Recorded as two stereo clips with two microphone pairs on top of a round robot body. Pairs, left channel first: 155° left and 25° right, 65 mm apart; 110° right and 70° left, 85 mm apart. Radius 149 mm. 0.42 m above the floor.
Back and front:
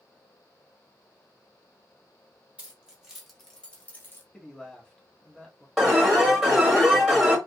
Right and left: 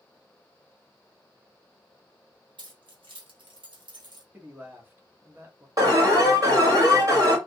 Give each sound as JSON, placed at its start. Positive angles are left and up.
{"t": 2.6, "sound": "keys jangling", "azimuth_deg": 45, "distance_m": 1.6}
{"t": 4.3, "sound": "a man speaking", "azimuth_deg": 105, "distance_m": 1.3}
{"t": 5.8, "sound": "an alarm", "azimuth_deg": 65, "distance_m": 2.5}